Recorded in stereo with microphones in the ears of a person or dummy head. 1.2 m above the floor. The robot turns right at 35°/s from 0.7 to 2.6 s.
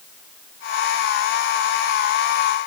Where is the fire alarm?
No fire alarm in this recording.